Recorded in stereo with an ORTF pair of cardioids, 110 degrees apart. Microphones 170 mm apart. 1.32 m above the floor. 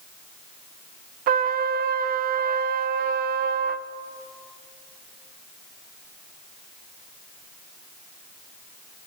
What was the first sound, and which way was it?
A trumpet, 60° right.